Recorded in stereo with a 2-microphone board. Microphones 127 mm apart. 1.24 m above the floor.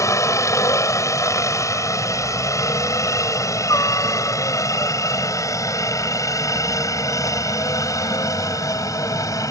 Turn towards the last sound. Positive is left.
turn(degrees=25)  # may be behind; listen again after turning